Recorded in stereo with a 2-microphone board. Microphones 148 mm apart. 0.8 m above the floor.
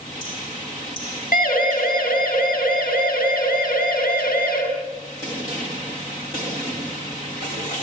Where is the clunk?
I don't hear a clunk.